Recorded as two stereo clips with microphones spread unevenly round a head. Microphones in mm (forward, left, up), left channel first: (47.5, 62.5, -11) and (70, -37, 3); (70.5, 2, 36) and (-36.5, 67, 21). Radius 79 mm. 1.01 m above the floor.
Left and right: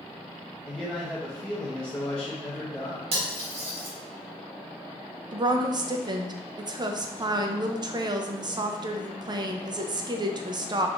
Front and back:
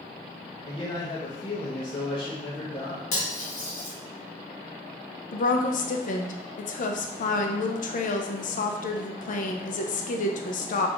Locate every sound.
0.7 s a man speaking: 25° left, 0.8 m
3.1 s cutlery clinking: 75° right, 1.0 m
5.3 s a woman speaking: 30° right, 0.5 m